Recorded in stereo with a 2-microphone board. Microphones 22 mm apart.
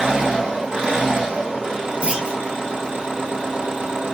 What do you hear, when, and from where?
0.0 s an engine running: 60° right (ahead or behind), 3.5 m
2.0 s a clunk: 65° right (ahead or behind), 1.6 m